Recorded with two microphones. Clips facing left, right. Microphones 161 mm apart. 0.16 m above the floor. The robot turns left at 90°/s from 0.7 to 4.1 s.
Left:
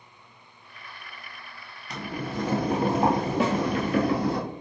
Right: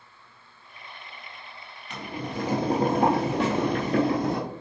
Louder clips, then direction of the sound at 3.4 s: Left 1 dB; 5° left (ahead or behind).